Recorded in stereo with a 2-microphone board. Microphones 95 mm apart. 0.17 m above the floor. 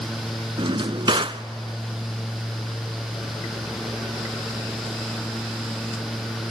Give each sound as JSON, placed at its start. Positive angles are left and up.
{"t": 0.6, "sound": "a drawer", "side_deg": -60, "distance_m": 0.5}